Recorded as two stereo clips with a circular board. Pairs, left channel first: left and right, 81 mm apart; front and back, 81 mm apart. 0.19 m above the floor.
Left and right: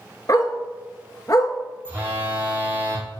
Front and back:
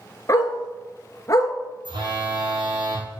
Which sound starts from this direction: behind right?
A phone buzzing, at 1.9 s.